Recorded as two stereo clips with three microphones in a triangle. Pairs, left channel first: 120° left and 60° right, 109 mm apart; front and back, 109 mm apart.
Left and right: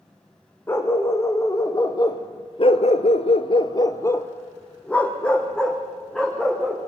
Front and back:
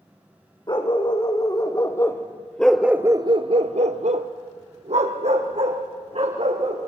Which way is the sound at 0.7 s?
50° left.